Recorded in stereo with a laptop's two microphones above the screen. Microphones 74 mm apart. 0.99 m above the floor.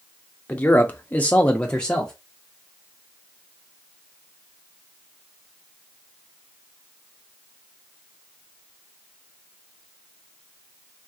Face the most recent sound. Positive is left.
turn(degrees=10)  # may be behind; listen again after turning